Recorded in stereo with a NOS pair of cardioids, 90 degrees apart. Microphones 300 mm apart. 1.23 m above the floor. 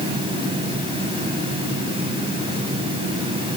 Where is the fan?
15° right, 8.5 m.